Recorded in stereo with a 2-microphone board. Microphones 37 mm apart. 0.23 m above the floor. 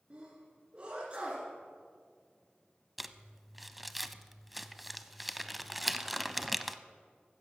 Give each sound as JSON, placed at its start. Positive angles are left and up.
{"t": 0.1, "sound": "a sneeze", "side_deg": -30, "distance_m": 2.5}
{"t": 3.0, "sound": "crumpling", "side_deg": 0, "distance_m": 0.6}